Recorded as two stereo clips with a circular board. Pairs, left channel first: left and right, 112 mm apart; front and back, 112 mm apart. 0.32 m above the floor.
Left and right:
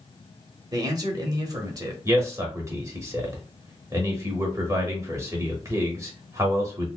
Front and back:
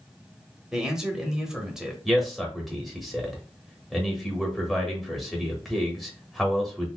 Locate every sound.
0.7 s a man speaking: 100° right, 1.0 m
2.0 s a man speaking: 90° right, 1.0 m